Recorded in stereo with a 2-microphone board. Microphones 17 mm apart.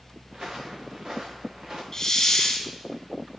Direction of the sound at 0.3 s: 35° right (ahead or behind).